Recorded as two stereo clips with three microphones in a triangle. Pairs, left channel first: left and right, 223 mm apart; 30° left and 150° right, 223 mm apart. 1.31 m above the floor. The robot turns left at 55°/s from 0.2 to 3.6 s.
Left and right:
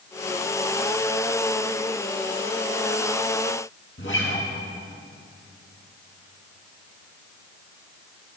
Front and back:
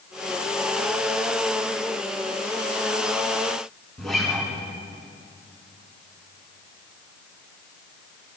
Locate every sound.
4.0 s a guitar: 120° left, 5.5 m